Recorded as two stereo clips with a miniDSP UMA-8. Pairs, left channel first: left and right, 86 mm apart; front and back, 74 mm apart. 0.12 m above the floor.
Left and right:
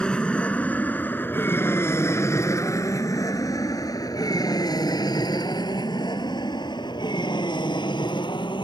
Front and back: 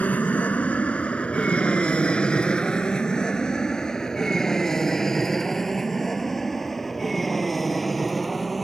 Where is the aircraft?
30° left; by 8.6 s 90° left.